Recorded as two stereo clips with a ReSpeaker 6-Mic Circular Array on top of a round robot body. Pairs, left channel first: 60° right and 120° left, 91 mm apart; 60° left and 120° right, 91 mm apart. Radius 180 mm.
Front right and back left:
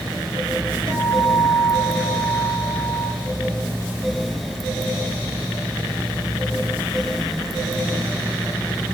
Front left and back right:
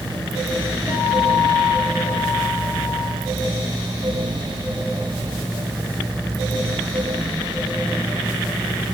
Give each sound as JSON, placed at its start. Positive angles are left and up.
{"t": 0.9, "sound": "a guitar", "azimuth_deg": -45, "distance_m": 3.5}